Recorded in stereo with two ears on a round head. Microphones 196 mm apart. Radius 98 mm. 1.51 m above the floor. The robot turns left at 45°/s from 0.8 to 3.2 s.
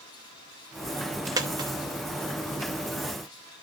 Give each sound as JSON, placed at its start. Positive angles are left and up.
{"t": 1.4, "sound": "a dropped coin", "side_deg": -15, "distance_m": 0.9}